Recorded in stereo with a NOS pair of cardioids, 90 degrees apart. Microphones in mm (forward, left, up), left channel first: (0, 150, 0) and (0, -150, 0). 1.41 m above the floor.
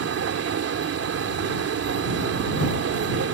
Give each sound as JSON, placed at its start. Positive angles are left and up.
{"t": 0.0, "sound": "a machine running", "azimuth_deg": -50}